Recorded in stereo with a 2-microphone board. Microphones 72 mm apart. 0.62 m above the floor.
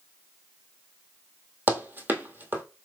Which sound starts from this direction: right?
Running footsteps, at 1.7 s.